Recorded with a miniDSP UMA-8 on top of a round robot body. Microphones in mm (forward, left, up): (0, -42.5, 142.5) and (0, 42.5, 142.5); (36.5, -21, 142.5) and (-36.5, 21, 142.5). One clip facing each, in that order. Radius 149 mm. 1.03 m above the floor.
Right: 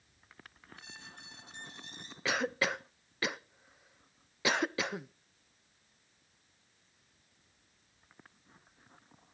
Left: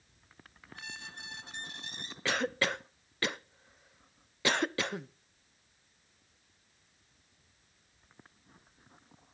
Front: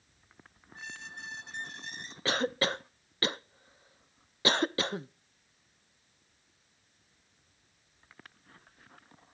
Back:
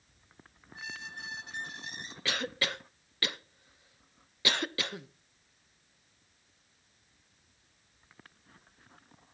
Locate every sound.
0.8 s a squeak: 60° left, 1.2 m
2.2 s a cough: 5° right, 0.5 m